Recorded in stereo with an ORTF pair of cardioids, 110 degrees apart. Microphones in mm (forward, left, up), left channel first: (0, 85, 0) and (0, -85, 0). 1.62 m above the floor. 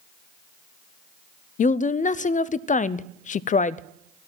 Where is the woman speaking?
45° left, 0.6 m.